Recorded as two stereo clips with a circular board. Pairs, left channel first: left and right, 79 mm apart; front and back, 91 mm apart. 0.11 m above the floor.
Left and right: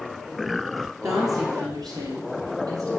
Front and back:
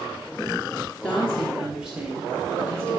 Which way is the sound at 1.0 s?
70° right.